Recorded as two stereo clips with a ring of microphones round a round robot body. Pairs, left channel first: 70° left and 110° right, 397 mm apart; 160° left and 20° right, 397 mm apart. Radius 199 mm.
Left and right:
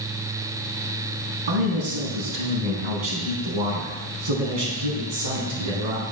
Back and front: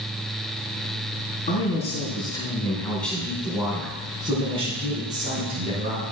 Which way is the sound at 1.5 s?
130° right.